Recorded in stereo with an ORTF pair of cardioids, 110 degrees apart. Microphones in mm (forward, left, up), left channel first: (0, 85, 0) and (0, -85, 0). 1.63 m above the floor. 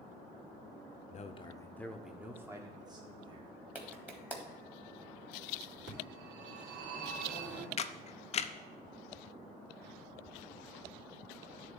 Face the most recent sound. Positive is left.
turn(degrees=35)